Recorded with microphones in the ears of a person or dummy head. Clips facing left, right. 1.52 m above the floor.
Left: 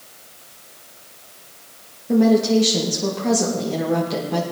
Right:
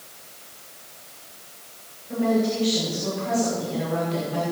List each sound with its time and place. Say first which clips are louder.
2.1 s a woman speaking: left 7 dB; 85° left, 2.5 m